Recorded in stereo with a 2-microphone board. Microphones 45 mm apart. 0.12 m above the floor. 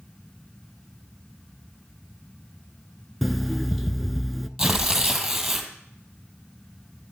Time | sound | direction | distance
3.2 | an alarm clock | centre (ahead or behind) | 0.7 m
4.6 | tearing paper | 5° right (ahead or behind) | 1.8 m